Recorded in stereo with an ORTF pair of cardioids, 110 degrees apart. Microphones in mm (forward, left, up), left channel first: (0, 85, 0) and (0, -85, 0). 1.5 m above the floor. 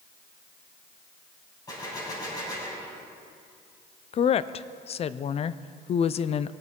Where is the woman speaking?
35° left, 0.6 m.